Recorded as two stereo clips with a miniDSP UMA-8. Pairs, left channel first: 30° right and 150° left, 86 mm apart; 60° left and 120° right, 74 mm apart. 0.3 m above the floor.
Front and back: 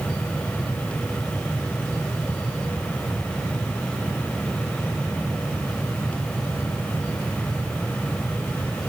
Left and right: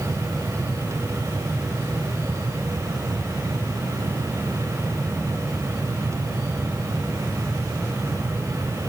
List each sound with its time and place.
Only background noise.